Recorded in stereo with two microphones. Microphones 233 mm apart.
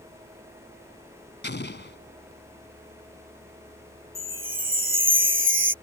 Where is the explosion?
50° left (ahead or behind).